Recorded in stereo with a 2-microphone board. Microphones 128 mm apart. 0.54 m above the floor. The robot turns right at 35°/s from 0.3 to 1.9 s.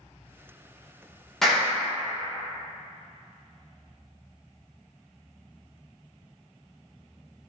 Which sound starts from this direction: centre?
A clap, at 1.4 s.